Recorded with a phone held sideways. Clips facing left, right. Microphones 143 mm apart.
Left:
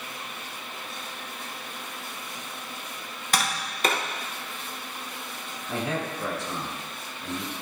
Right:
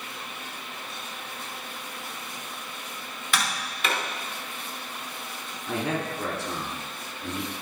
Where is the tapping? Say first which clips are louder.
Left 2 dB; 40° left (ahead or behind), 1.0 m.